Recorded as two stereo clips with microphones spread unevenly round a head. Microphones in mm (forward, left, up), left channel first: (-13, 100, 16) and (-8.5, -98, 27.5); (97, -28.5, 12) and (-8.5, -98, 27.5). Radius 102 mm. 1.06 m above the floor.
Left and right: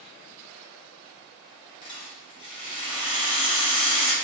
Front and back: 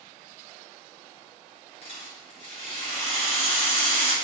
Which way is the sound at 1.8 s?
35° left.